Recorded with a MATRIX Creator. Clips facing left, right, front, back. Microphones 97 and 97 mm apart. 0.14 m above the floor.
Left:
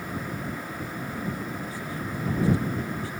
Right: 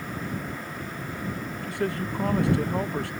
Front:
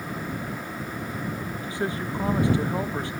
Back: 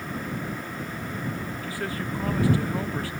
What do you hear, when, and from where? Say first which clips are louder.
1.6 s a man speaking: right 5 dB, front 4 dB; 65° right